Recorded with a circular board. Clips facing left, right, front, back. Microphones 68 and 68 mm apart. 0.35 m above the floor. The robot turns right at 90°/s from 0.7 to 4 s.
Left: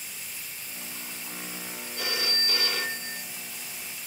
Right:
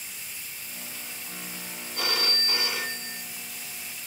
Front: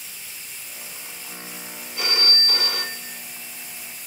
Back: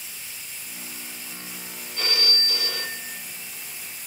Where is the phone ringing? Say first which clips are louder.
Right 2 dB, front 2 dB; 80° right, 2.5 m; by 3.2 s 35° left, 2.5 m.